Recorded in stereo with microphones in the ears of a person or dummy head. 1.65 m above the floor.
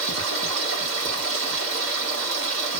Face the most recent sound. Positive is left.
turn(degrees=-65)  # may be behind; listen again after turning